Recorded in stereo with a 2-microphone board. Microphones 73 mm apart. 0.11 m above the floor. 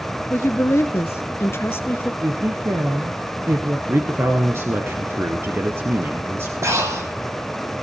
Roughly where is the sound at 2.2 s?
Right.